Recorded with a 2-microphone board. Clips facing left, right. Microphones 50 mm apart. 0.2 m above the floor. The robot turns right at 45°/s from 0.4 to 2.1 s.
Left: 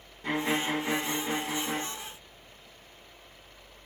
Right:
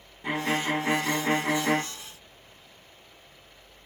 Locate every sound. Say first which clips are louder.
0.2 s a violin: right 2 dB; 175° right, 0.8 m; by 1.8 s 110° right, 0.8 m